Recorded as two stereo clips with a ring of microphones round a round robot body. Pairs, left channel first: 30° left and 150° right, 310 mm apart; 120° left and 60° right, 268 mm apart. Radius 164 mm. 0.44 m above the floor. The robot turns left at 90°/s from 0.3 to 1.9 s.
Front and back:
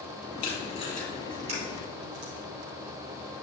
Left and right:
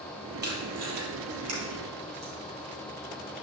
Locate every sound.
0.4 s tape being pulled: 10° right, 2.5 m; by 2.3 s 140° right, 2.5 m